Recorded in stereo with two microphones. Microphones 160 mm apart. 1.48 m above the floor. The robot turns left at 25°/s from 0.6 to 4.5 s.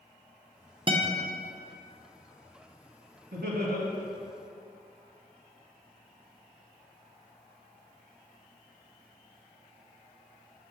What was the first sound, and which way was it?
A guitar, 30° right (ahead or behind).